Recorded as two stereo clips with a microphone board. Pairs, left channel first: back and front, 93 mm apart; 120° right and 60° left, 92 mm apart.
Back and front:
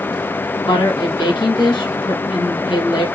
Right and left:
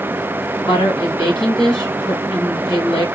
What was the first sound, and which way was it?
A woman speaking, 150° right.